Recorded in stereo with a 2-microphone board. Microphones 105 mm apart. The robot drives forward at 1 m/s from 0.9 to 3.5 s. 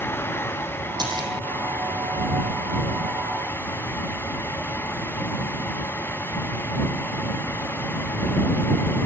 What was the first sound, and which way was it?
A splash, 40° right (ahead or behind).